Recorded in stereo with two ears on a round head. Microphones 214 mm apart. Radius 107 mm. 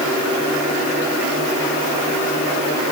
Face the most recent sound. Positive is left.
No sound to turn to.